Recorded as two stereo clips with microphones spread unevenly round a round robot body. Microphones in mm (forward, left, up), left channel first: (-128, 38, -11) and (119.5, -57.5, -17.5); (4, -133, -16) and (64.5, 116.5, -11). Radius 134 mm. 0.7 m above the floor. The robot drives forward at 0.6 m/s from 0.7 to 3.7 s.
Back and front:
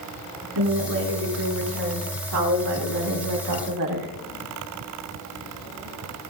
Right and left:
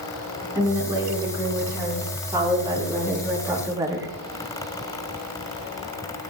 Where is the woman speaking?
Straight ahead, 5.5 m.